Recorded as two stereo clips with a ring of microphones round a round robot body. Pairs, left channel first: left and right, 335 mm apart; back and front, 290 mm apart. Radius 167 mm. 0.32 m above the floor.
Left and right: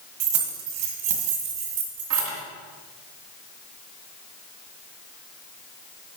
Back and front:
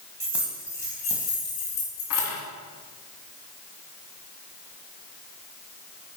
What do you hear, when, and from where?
0.2 s keys jangling: 80° right, 1.5 m; by 2.4 s 145° right, 2 m